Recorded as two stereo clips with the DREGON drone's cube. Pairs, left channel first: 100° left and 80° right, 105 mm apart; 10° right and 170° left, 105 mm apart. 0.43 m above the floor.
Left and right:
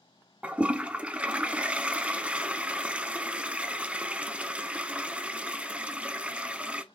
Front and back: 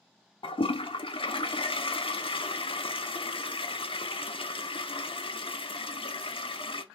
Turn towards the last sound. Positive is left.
turn(degrees=0)